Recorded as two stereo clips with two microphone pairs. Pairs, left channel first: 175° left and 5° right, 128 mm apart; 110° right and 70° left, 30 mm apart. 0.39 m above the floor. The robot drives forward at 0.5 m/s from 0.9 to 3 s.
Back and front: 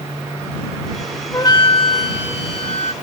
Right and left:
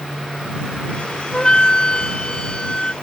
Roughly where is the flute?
Behind right.